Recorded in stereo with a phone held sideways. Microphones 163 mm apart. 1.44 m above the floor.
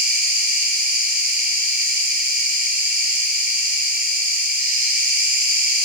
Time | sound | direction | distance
0.0 | an insect | 65° right (ahead or behind) | 3 m